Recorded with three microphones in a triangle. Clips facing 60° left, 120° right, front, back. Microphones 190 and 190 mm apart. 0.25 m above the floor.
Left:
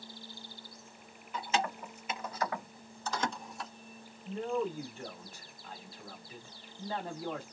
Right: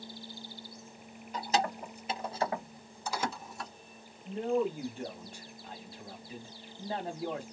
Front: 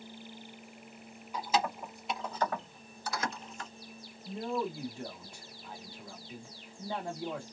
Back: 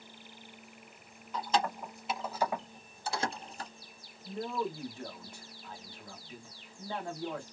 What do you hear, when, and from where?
1.3 s keys jangling: 75° right, 1.0 m; by 3.7 s 145° left, 0.8 m
4.2 s a man speaking: 60° right, 1.0 m